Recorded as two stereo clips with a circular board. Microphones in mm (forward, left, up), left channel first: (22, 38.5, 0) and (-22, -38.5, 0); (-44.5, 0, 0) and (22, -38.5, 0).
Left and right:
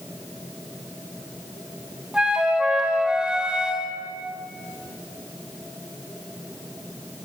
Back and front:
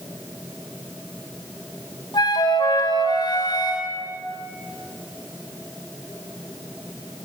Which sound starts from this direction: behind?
A flute, at 2.1 s.